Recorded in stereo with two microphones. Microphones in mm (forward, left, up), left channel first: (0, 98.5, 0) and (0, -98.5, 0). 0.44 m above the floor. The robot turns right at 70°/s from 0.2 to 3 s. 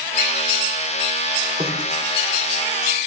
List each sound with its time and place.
1.6 s a snare drum: 25° right (ahead or behind), 9.5 m; by 1.8 s 40° right (ahead or behind), 9.5 m